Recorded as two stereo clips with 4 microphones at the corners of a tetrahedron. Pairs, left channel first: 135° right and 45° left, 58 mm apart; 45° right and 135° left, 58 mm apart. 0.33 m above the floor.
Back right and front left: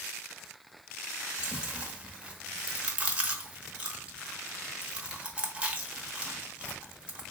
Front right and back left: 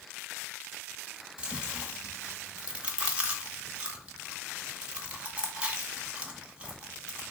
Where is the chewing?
95° left, 0.7 m.